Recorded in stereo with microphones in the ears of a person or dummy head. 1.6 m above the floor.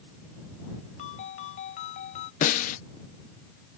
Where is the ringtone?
40° left (ahead or behind).